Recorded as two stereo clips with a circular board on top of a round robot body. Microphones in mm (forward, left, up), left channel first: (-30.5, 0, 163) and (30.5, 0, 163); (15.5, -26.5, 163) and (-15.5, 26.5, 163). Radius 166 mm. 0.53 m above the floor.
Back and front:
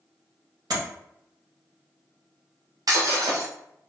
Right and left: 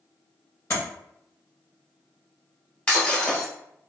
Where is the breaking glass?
15° left, 1.0 m.